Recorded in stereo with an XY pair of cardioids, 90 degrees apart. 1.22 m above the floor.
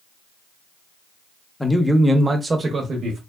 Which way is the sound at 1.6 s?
15° left.